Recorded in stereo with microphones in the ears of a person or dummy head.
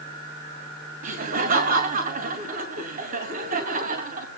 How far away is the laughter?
About 2.5 m.